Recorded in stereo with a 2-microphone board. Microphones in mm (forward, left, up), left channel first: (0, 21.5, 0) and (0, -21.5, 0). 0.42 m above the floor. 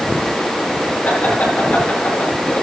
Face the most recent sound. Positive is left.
turn(degrees=40)  # may be behind; listen again after turning